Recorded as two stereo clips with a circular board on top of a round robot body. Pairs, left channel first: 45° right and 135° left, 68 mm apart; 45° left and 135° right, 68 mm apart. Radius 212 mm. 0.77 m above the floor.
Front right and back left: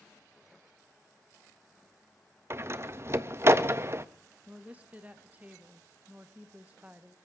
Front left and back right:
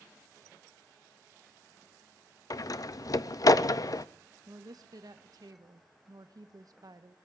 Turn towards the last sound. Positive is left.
turn(degrees=-160)